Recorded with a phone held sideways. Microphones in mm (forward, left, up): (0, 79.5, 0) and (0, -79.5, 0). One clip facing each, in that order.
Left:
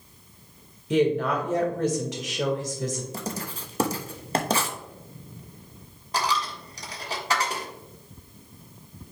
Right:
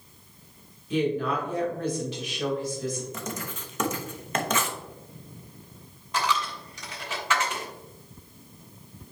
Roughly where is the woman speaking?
Left.